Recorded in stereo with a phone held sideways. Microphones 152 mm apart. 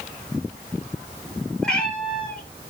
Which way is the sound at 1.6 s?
5° left (ahead or behind).